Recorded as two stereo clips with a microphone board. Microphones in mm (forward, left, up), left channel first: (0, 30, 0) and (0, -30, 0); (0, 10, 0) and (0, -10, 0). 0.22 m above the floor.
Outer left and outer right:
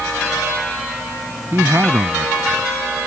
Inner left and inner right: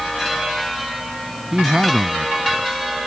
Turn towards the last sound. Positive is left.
turn(degrees=-45)  # may be behind; listen again after turning